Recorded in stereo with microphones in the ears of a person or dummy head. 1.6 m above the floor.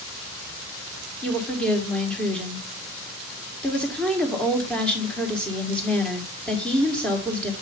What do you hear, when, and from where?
1.2 s a woman speaking: 5° left (ahead or behind), 1.4 m